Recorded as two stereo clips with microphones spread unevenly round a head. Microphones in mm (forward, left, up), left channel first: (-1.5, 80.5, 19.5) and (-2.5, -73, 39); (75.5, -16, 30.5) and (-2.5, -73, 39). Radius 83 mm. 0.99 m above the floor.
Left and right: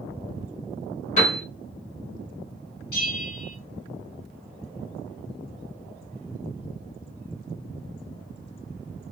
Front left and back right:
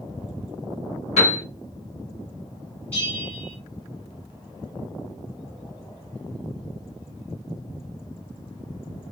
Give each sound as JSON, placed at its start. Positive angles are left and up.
{"t": 1.2, "sound": "a piano", "azimuth_deg": 40, "distance_m": 1.1}
{"t": 2.9, "sound": "a bell", "azimuth_deg": 115, "distance_m": 1.7}